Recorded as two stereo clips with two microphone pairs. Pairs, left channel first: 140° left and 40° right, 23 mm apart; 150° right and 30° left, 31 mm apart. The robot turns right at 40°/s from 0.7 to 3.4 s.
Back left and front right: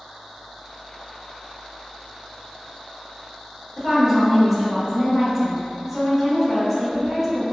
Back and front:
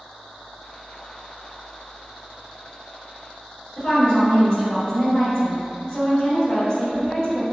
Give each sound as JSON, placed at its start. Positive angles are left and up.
{"t": 3.8, "sound": "a woman speaking", "azimuth_deg": -110, "distance_m": 1.3}